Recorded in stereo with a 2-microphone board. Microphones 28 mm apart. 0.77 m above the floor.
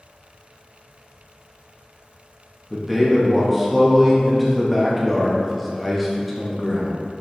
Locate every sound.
2.7 s a man speaking: centre (ahead or behind), 0.6 m